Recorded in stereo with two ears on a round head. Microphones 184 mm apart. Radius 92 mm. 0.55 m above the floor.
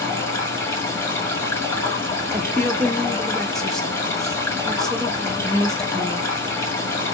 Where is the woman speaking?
Centre (ahead or behind), 1.2 m.